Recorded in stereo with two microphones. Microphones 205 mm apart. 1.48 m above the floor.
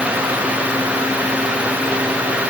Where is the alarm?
No alarm in this recording.